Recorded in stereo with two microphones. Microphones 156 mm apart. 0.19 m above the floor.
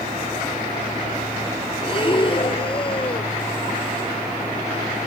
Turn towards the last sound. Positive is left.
turn(degrees=35)  # may be behind; listen again after turning